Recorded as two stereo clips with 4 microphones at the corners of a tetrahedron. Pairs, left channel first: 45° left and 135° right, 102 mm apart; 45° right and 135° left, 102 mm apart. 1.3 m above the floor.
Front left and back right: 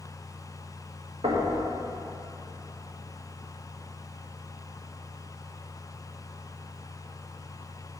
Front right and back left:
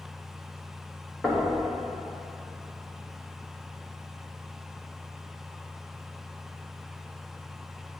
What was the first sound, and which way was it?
Knocking, 125° right.